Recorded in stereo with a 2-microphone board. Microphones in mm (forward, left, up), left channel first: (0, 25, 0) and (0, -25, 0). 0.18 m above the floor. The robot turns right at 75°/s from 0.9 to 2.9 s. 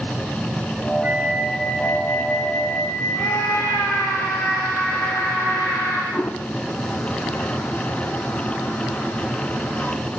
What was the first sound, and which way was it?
A flute, 35° right.